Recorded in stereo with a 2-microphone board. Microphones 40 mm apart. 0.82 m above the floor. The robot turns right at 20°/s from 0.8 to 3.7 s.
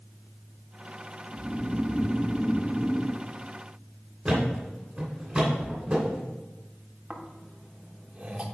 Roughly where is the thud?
Centre.